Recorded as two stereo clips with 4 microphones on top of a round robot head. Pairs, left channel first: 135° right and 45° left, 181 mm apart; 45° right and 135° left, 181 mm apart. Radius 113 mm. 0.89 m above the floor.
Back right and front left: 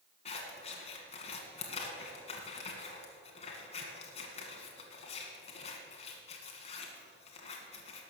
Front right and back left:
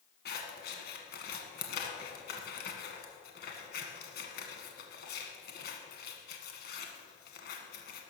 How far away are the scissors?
About 1.5 m.